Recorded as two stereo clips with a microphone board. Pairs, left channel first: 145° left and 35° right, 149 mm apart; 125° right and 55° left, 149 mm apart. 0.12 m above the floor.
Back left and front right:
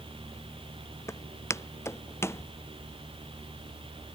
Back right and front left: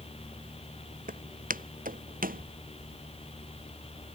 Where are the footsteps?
75° left.